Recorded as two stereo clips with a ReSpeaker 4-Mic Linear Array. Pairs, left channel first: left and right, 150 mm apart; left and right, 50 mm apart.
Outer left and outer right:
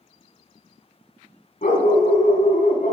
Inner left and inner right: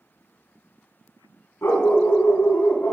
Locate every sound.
1.6 s a dog barking: 65° left (ahead or behind), 3.5 m